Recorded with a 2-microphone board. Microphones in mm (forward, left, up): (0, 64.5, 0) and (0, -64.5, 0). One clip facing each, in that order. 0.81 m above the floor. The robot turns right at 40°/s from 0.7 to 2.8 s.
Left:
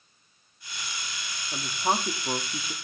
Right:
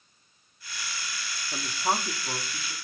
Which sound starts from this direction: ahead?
A woman speaking, at 1.5 s.